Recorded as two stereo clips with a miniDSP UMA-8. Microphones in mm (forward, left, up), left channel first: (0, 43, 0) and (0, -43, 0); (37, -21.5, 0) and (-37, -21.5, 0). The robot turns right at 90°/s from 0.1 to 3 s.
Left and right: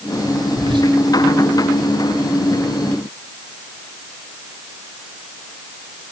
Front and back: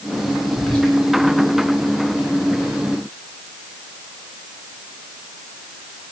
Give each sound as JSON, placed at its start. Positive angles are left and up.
{"t": 0.6, "sound": "whispering", "azimuth_deg": -90, "distance_m": 3.0}